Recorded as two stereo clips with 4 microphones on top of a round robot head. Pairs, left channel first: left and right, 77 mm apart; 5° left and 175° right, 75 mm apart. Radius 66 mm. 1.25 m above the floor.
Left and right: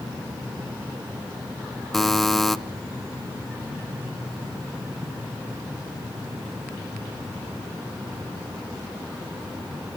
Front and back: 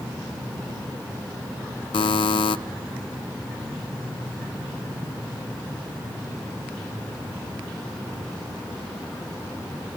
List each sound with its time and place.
1.9 s a buzzer: 5° left, 0.5 m